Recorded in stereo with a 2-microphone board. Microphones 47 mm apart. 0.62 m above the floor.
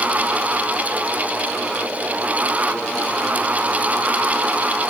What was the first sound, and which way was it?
Only background noise.